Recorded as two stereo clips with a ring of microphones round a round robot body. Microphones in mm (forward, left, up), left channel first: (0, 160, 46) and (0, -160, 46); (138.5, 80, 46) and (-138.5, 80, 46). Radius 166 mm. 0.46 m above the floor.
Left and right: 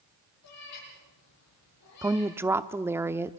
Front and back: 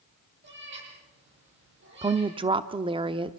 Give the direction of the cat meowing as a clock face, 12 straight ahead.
8 o'clock.